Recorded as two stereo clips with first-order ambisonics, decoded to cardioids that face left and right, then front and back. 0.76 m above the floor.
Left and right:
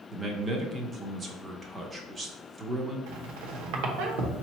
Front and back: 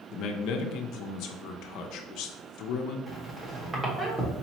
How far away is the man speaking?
About 0.7 m.